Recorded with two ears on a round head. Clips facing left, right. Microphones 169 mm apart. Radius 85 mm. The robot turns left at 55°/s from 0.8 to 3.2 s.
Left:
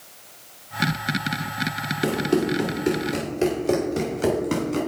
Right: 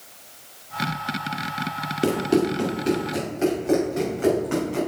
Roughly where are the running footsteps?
Right.